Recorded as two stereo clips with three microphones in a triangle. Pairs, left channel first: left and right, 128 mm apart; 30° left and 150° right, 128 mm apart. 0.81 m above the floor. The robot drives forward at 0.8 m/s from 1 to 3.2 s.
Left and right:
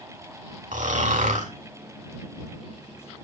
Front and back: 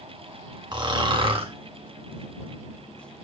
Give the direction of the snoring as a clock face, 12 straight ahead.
3 o'clock.